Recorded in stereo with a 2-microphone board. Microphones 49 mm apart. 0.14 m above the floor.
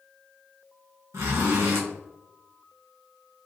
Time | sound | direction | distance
1.1 | a zipper | 80° right | 1.7 m